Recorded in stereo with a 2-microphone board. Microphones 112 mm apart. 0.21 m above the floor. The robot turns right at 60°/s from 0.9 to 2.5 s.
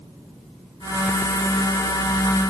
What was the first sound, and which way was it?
Only background noise.